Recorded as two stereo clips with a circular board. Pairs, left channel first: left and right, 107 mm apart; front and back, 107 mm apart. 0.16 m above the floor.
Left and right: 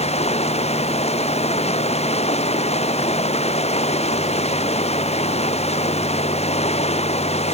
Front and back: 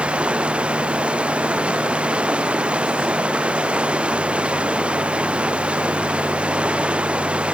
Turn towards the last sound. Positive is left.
turn(degrees=100)